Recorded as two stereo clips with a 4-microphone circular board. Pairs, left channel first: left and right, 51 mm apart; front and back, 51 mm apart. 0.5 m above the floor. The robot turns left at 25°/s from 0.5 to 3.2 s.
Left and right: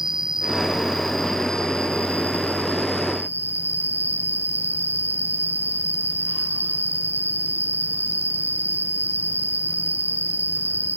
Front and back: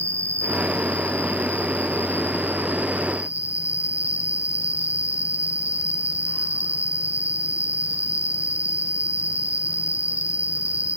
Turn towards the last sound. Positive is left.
turn(degrees=125)